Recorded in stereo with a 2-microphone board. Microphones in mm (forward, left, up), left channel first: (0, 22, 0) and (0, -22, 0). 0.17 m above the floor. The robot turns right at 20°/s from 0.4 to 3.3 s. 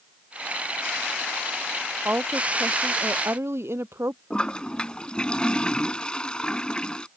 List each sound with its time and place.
2.0 s a woman speaking: 50° right (ahead or behind); by 4.2 s 70° right (ahead or behind)
4.3 s a toilet flushing: 20° left (ahead or behind)